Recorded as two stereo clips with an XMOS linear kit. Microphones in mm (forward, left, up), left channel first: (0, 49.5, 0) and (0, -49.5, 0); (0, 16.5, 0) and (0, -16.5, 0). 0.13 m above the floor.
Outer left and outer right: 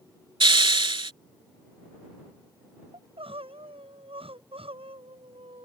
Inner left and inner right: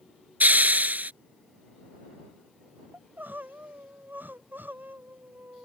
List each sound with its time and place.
0.4 s a hiss: 55° right (ahead or behind)
2.9 s crying: 70° right (ahead or behind)